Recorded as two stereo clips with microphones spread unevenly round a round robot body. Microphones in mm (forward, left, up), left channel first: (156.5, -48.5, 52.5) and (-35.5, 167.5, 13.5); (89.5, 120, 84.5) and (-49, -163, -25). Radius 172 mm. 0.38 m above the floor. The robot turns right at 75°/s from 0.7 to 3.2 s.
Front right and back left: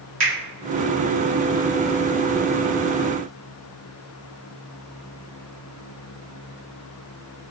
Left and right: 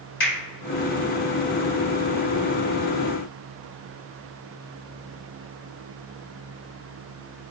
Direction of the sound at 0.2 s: 100° left.